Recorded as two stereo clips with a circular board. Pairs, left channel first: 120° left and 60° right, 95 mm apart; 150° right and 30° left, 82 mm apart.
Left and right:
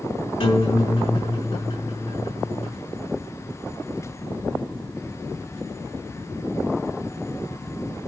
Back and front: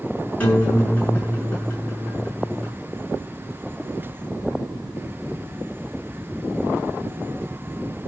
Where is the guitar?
140° left, 7.5 m.